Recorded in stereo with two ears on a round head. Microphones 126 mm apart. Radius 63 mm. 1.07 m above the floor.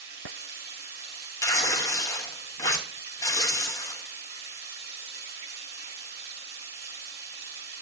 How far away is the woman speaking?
I don't hear a woman speaking.